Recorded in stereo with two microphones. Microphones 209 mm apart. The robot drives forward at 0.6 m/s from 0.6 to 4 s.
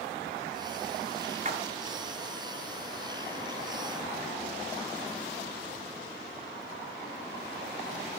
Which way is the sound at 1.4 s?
35° right (ahead or behind).